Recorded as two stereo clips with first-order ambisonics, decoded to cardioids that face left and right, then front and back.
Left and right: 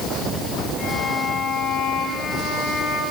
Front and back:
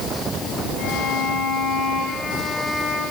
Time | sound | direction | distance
0.8 | a violin | 40° left | 4 m